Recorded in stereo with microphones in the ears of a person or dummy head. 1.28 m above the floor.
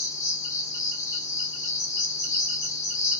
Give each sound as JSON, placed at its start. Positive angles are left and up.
{"t": 0.0, "sound": "an insect", "side_deg": 15, "distance_m": 0.8}